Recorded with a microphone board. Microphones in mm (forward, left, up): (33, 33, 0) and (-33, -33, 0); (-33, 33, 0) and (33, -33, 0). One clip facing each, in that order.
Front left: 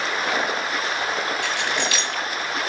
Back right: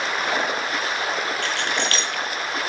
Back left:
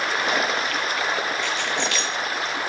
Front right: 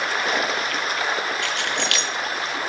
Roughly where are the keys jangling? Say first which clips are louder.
Even, even; ahead right.